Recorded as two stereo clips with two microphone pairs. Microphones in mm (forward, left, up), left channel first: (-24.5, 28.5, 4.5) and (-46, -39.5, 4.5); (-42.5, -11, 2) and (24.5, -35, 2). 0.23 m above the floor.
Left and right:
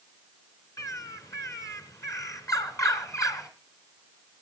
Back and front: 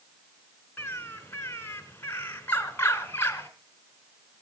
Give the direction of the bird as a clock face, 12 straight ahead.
8 o'clock.